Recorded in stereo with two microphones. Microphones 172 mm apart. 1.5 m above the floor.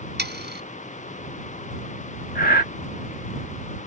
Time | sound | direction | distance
0.2 | sawing | 80° right | ?
2.4 | breathing | 60° left (ahead or behind) | ?